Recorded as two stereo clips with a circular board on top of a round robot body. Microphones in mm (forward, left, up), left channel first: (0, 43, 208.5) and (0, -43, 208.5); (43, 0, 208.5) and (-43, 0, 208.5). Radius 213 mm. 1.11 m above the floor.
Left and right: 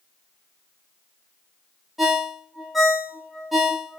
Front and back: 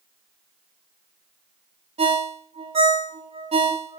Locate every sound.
2.0 s a ringtone: straight behind, 1.2 m